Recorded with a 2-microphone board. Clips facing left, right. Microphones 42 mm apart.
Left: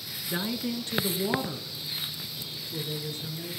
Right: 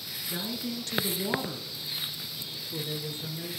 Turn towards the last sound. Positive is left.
turn(degrees=-30)  # may be behind; listen again after turning